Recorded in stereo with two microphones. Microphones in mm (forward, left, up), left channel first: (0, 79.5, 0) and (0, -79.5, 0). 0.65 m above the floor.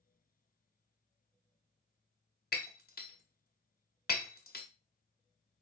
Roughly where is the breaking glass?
Left.